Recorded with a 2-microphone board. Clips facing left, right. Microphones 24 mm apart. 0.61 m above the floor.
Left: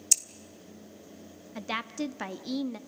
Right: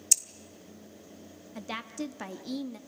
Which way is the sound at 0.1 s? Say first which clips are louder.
Even; 5° left (ahead or behind).